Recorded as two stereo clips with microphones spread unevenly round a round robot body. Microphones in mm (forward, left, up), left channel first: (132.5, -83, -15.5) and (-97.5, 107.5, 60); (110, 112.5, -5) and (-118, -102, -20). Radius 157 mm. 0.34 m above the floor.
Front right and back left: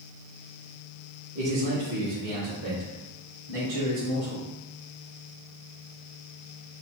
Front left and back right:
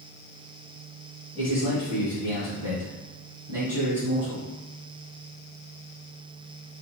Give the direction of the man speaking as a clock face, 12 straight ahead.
7 o'clock.